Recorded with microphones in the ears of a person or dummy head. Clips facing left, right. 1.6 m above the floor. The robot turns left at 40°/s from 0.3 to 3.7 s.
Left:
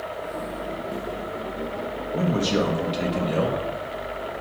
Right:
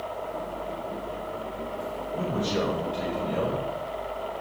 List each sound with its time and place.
2.1 s a man speaking: 105° left, 2 m; by 3.6 s 45° left, 2 m